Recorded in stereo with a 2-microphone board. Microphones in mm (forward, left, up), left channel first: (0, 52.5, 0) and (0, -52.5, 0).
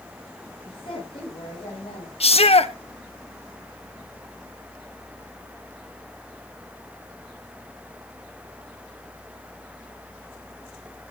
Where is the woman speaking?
50° left (ahead or behind), 7.5 m; by 2.1 s 55° left (ahead or behind), 9 m.